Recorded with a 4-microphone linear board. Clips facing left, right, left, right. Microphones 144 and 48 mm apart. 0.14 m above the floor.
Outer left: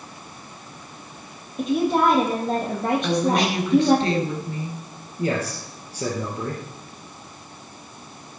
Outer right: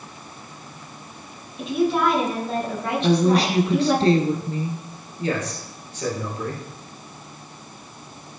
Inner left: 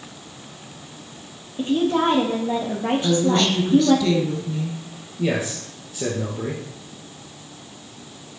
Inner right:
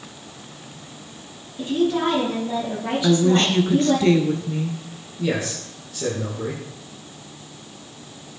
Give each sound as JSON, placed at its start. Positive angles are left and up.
{"t": 1.6, "sound": "a woman speaking", "side_deg": 45, "distance_m": 4.5}
{"t": 3.0, "sound": "a woman speaking", "side_deg": -35, "distance_m": 2.0}
{"t": 5.2, "sound": "a man speaking", "side_deg": 35, "distance_m": 3.5}